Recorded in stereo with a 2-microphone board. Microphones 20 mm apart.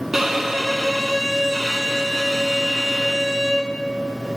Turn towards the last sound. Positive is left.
turn(degrees=-20)  # may be behind; listen again after turning